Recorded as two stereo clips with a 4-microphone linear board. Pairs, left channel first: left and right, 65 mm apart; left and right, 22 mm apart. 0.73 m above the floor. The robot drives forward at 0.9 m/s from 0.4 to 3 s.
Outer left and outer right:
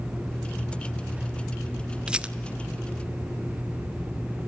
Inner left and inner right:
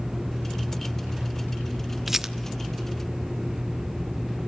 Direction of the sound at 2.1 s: 15° right (ahead or behind).